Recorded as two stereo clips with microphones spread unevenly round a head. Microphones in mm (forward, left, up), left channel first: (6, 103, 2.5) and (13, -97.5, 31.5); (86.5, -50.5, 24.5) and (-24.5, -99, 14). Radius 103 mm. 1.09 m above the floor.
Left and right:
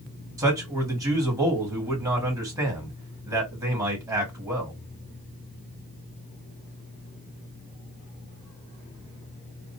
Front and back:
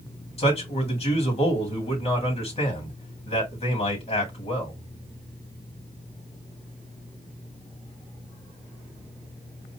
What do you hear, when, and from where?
0.4 s a man speaking: 10° right, 3 m